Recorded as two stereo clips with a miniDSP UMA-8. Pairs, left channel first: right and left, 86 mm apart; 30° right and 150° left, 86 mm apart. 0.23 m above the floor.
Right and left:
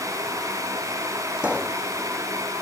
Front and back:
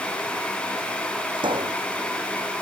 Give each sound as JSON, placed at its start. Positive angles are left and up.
{"t": 1.4, "sound": "a pop", "azimuth_deg": 165}